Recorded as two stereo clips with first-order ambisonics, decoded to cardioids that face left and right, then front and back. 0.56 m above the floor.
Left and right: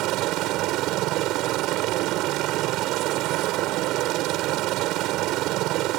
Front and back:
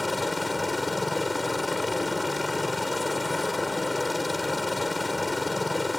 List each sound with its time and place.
0.0 s a helicopter: 80° right